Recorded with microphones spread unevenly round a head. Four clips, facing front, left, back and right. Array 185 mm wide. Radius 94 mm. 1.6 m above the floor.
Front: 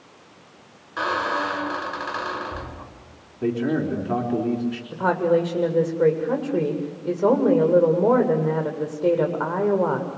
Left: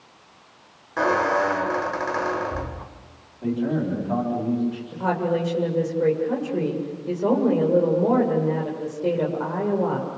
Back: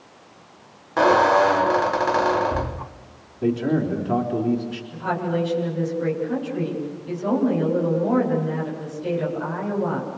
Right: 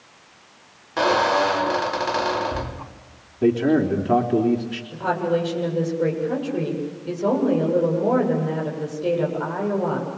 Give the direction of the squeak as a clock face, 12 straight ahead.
6 o'clock.